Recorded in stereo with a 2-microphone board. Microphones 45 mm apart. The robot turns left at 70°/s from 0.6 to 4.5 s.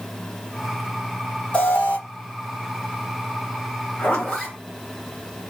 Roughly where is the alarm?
Left.